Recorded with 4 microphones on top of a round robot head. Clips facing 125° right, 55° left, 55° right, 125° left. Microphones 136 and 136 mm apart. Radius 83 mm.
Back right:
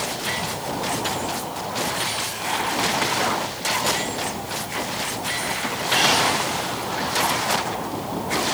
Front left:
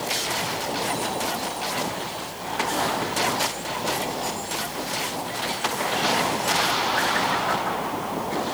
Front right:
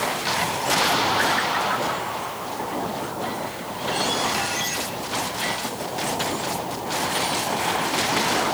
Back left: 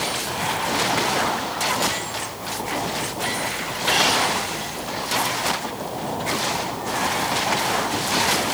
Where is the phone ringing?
I don't hear a phone ringing.